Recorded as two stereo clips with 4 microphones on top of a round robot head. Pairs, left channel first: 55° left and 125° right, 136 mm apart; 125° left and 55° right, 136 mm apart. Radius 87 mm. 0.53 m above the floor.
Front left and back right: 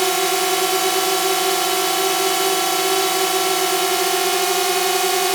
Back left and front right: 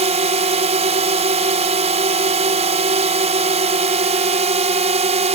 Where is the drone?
35° right.